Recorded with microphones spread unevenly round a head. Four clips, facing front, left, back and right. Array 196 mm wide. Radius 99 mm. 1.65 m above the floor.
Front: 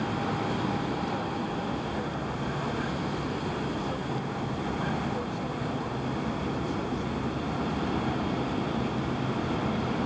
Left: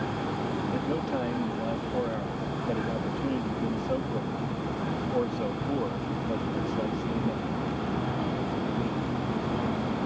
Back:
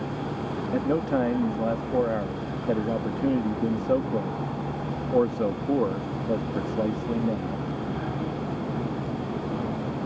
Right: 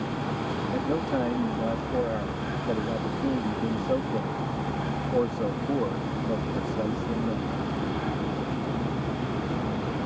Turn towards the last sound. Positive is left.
turn(degrees=-170)